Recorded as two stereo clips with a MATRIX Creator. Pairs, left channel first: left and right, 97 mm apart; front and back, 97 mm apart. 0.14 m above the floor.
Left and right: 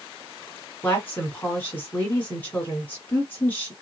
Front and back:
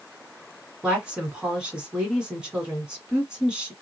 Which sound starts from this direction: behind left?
A woman speaking, at 0.8 s.